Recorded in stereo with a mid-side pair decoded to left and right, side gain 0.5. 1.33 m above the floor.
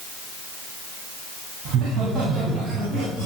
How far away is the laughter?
About 8 m.